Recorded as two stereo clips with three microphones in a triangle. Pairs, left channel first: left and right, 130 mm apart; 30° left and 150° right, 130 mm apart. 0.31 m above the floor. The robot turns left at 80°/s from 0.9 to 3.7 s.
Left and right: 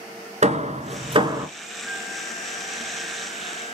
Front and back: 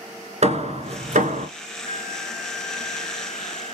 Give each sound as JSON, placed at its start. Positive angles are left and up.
{"t": 0.4, "sound": "hammering", "azimuth_deg": -115, "distance_m": 1.4}
{"t": 1.8, "sound": "a flute", "azimuth_deg": 175, "distance_m": 4.5}